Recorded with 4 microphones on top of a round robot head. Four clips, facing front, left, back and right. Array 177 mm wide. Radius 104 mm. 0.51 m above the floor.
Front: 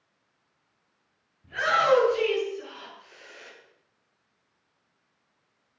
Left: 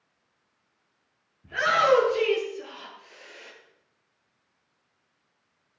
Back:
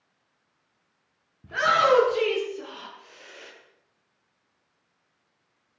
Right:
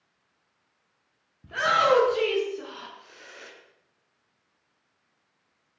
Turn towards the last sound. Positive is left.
turn(degrees=-120)